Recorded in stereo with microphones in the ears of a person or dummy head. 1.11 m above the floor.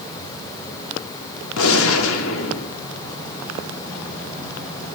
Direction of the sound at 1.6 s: 80° left.